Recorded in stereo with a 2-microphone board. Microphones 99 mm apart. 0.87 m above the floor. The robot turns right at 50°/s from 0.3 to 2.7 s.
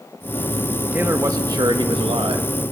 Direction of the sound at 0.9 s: 160° right.